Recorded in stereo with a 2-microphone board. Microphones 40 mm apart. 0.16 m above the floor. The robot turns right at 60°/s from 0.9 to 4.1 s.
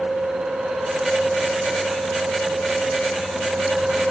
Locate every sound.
Only background noise.